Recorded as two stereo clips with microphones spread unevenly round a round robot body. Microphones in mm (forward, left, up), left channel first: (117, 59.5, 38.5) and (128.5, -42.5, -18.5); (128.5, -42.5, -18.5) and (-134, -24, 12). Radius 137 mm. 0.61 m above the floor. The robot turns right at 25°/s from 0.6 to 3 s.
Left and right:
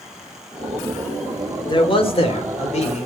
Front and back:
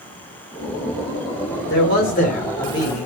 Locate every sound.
1.7 s a man speaking: 40° left, 1.6 m; by 3.1 s 75° left, 1.6 m